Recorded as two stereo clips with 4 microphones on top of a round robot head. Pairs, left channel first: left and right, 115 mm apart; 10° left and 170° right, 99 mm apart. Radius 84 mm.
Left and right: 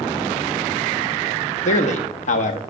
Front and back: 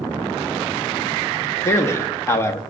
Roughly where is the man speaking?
Left.